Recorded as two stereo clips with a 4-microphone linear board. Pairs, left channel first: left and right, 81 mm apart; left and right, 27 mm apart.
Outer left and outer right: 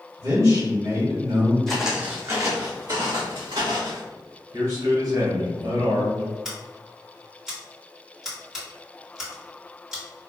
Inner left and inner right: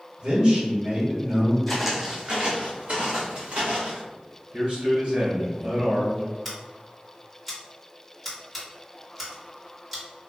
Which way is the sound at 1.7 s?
5° left (ahead or behind).